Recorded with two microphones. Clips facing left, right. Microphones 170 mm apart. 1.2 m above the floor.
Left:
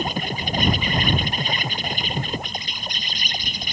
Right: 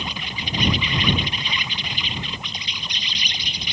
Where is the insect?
45° left (ahead or behind).